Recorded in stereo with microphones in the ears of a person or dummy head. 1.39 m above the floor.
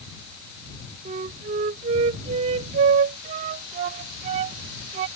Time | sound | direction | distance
1.1 | a flute | 30° right (ahead or behind) | ?